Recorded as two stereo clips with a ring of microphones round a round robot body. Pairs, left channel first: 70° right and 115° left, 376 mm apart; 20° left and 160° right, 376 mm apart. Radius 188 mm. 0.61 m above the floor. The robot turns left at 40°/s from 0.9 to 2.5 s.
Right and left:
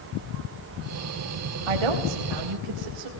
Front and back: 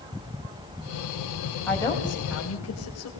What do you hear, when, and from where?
1.7 s a woman speaking: 110° left, 3.5 m; by 3.1 s 75° left, 3.5 m